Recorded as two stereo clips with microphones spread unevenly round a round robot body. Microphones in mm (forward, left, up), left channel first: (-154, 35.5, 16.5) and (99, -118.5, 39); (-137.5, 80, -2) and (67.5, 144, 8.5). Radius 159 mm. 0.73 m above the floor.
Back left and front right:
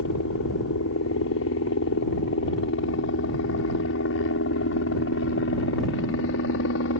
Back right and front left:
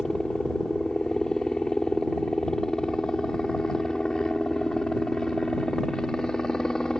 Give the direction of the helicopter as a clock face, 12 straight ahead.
8 o'clock.